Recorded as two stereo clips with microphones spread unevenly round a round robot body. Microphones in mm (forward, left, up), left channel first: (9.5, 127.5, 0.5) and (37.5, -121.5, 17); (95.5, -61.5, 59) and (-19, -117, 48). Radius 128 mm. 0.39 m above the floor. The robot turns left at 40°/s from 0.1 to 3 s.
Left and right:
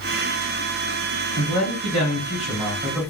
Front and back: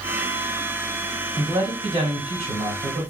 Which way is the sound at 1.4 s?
105° right.